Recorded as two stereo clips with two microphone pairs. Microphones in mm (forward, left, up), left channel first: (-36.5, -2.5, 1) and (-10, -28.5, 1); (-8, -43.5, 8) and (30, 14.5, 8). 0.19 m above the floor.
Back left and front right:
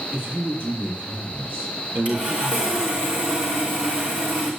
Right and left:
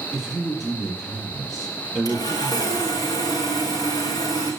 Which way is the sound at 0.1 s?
35° right.